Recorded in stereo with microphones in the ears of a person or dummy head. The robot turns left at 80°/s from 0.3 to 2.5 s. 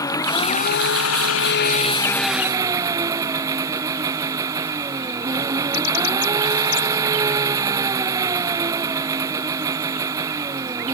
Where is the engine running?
165° left; by 10.9 s 15° right.